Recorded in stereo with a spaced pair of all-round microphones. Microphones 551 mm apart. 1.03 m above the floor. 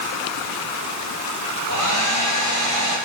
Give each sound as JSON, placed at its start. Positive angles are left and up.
{"t": 1.7, "sound": "a hair dryer", "side_deg": 30, "distance_m": 2.5}